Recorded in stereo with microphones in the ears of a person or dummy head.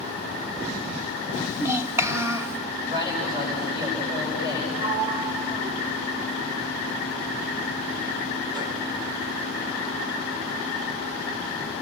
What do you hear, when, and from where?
1.3 s a child speaking: 15° right (ahead or behind), 1.1 m
2.9 s a man speaking: 20° right (ahead or behind), 8 m
4.8 s a sliding door: 20° right (ahead or behind), 1.0 m